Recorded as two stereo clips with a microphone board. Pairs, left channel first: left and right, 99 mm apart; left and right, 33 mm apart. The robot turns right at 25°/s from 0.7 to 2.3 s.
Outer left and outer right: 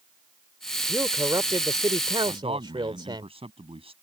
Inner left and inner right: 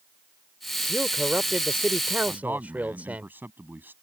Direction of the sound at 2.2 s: 65° right (ahead or behind).